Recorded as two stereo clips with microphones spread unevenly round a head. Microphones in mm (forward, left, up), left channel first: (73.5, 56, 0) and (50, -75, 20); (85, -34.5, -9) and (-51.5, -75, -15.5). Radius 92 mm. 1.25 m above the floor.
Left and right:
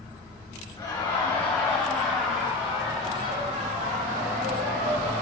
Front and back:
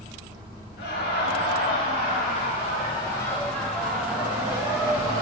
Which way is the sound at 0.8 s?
15° left.